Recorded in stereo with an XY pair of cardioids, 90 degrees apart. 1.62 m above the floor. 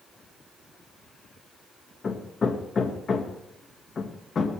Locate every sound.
2.0 s hammering: 50° left, 1.7 m